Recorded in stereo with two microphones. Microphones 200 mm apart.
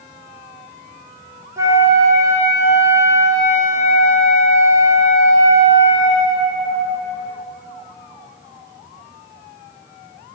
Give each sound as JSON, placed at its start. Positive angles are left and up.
{"t": 1.6, "sound": "a flute", "side_deg": -15, "distance_m": 0.9}